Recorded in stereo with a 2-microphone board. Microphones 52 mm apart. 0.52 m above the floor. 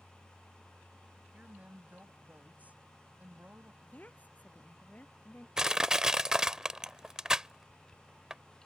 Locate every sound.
1.3 s a woman speaking: 35° right (ahead or behind)
3.8 s a woman speaking: 35° left (ahead or behind)
5.6 s crushing: 10° right (ahead or behind)